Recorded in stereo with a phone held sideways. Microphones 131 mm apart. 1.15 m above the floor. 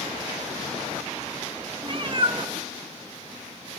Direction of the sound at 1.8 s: 40° right (ahead or behind).